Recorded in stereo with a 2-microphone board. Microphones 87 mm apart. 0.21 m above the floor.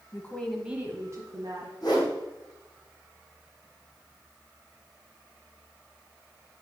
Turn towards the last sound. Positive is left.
turn(degrees=55)  # may be behind; listen again after turning